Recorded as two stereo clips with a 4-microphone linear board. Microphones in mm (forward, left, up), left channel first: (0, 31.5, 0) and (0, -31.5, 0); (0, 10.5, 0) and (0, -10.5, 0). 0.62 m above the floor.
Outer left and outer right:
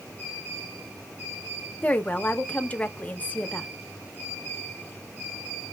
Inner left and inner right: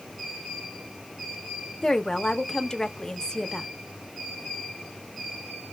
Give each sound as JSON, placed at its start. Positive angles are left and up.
{"t": 1.8, "sound": "a woman speaking", "side_deg": 25, "distance_m": 0.5}